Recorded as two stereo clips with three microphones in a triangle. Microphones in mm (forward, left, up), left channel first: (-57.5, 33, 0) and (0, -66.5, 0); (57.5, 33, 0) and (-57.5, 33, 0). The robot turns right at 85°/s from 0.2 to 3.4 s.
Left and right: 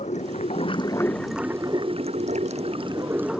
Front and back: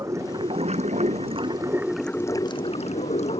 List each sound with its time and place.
0.0 s running water: 115° left; by 3.4 s 30° left